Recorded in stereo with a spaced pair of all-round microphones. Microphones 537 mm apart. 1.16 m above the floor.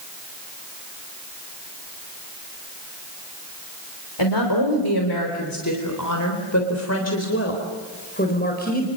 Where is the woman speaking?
50° left (ahead or behind), 3.5 m; by 8.9 s 15° left (ahead or behind), 4.5 m.